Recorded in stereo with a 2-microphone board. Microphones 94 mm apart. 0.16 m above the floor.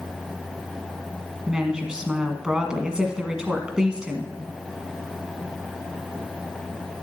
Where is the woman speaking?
10° right (ahead or behind), 1.2 m.